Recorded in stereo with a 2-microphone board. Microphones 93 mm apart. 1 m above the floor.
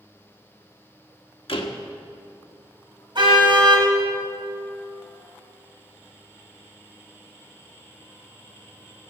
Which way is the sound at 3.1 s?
55° right (ahead or behind).